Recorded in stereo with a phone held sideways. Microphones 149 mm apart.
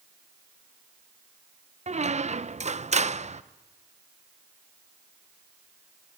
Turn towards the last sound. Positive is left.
turn(degrees=-50)  # may be behind; listen again after turning